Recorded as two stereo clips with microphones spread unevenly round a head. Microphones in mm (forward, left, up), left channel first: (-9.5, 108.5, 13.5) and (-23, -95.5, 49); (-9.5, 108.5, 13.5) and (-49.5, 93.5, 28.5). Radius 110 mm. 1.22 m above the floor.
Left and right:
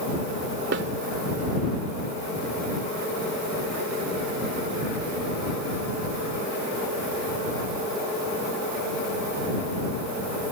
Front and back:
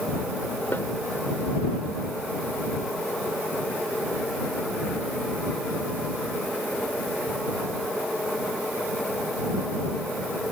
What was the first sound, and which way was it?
A snare drum, 55° right.